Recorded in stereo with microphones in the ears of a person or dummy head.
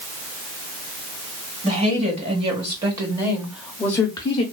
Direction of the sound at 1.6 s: 35° right (ahead or behind).